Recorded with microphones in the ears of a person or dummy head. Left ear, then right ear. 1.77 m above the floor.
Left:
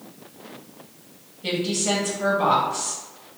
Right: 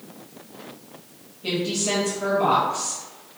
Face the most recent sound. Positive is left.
turn(degrees=30)  # may be behind; listen again after turning